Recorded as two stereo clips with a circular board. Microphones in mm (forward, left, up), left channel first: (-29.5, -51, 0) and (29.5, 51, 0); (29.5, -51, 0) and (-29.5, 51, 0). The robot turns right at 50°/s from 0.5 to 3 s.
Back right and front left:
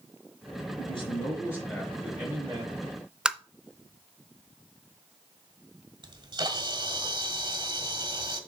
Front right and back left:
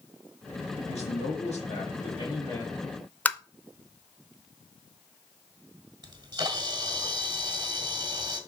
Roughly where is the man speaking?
Right.